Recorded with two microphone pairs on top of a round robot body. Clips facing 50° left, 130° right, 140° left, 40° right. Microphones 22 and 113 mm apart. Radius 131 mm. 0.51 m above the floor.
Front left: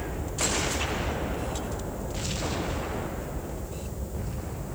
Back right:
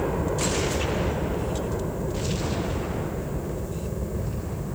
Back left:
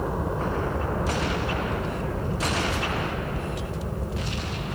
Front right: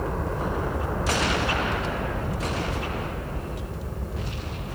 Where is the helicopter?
140° right; by 4.8 s 155° right.